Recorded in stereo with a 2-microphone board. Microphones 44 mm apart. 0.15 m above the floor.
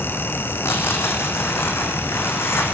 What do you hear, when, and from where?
0.6 s tearing paper: 65° left (ahead or behind), 4 m